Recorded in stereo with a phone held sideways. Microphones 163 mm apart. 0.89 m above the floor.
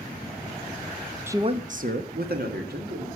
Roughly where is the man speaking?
Centre.